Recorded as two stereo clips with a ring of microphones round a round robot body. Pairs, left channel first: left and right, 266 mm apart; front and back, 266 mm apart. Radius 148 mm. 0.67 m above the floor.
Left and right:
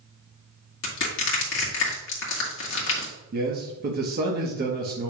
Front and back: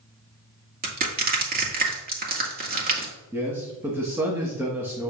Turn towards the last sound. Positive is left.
turn(degrees=-105)